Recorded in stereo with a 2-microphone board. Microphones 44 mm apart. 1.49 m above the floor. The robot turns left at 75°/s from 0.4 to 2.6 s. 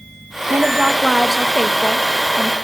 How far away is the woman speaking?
About 1.9 m.